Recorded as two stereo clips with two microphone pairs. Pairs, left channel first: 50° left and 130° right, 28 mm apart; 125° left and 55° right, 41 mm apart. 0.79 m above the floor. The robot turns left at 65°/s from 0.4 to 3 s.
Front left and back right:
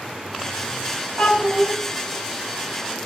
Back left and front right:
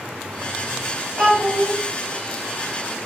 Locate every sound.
1.2 s a child speaking: 140° right, 1.1 m; by 1.7 s 175° right, 1.1 m